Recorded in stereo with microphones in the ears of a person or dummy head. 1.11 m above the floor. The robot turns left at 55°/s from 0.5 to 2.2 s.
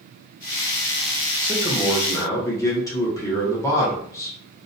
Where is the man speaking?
155° right, 0.7 m; by 4.3 s 160° left, 0.7 m.